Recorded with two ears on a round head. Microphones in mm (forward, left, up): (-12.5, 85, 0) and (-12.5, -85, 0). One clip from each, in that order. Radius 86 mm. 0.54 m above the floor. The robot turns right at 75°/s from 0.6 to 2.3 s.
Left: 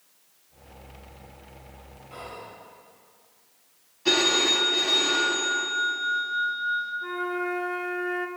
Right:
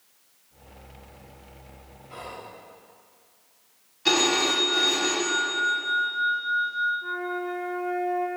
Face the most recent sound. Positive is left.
turn(degrees=35)  # may be behind; listen again after turning